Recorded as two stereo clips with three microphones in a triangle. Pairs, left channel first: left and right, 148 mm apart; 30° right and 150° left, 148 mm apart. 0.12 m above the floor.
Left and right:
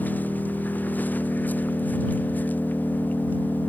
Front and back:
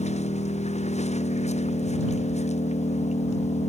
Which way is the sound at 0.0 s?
10° left.